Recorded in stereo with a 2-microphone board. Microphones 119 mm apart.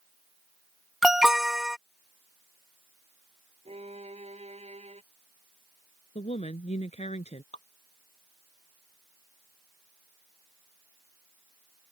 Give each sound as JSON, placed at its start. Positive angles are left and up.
{"t": 1.0, "sound": "an alarm", "side_deg": -5}
{"t": 3.6, "sound": "a violin", "side_deg": -60}
{"t": 6.2, "sound": "a woman speaking", "side_deg": 70}
{"t": 7.5, "sound": "dripping", "side_deg": 80}